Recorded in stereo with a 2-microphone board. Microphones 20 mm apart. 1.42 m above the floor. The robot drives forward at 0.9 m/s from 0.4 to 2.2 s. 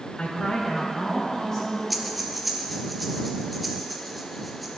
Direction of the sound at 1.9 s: 5° right (ahead or behind).